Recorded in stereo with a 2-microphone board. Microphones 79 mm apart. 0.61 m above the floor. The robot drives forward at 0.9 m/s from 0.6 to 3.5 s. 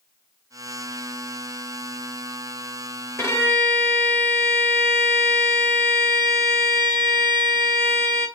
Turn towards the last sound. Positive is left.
turn(degrees=30)  # may be behind; listen again after turning